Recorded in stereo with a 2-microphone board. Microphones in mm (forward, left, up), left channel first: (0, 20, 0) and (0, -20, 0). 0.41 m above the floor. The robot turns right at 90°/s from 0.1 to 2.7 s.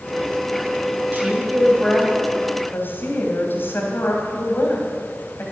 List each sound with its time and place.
1.1 s a woman speaking: 55° right (ahead or behind), 3 m; by 5.4 s 65° left (ahead or behind), 3 m